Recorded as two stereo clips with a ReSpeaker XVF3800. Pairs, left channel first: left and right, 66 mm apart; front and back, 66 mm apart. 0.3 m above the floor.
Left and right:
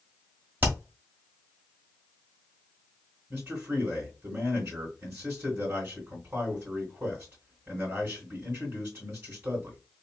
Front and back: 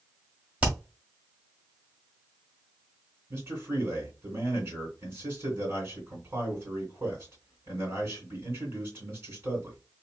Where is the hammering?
125° right, 1.4 m.